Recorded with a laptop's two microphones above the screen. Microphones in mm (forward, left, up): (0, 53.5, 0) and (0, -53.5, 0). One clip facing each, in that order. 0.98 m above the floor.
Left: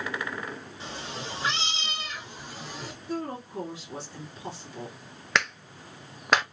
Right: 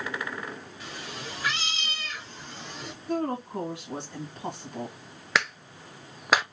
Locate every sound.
0.8 s a cat meowing: 30° left (ahead or behind), 1.0 m; by 2.9 s 5° left (ahead or behind), 1.0 m
3.1 s a woman speaking: 60° right (ahead or behind), 1.7 m
5.3 s a clap: 5° right (ahead or behind), 0.7 m